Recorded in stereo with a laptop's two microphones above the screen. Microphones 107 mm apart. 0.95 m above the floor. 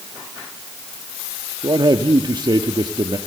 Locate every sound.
1.6 s a man speaking: 45° right (ahead or behind), 1.3 m